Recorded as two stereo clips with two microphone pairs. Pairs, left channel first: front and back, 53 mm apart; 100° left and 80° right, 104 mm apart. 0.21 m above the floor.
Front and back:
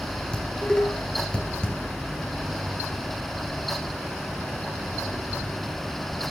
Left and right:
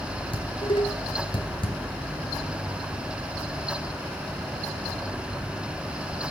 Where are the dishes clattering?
70° left, 2.5 m.